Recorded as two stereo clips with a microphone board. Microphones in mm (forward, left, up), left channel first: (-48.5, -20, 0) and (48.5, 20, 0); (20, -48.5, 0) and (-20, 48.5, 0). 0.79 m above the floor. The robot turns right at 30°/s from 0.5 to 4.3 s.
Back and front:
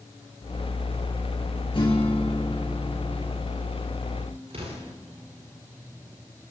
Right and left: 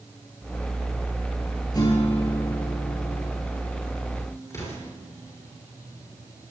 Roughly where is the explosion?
Ahead.